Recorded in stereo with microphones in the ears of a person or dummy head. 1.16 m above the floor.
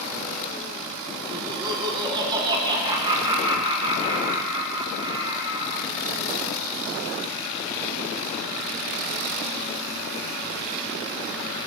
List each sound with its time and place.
1.3 s laughter: 20° right (ahead or behind), 1.0 m